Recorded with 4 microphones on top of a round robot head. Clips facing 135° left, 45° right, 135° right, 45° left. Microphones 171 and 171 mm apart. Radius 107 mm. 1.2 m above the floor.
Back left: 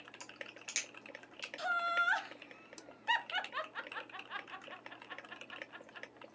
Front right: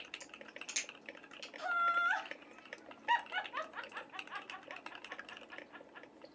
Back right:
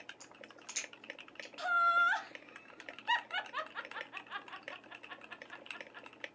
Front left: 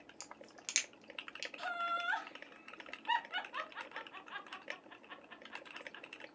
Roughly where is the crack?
Ahead left.